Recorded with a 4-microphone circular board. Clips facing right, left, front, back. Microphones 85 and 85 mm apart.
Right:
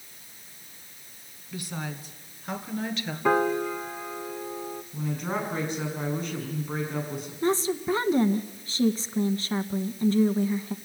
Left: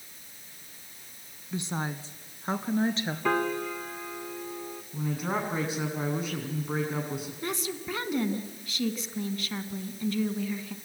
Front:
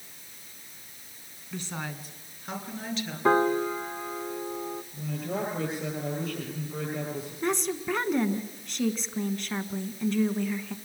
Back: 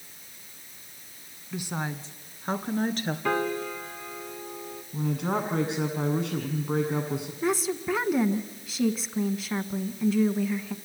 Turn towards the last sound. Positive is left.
turn(degrees=-95)